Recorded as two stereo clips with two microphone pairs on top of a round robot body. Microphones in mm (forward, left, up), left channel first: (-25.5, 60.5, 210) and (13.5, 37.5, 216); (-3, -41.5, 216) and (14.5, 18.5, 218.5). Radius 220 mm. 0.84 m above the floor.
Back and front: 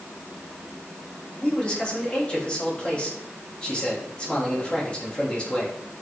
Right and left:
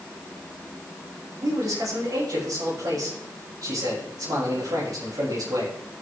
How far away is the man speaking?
About 7.5 m.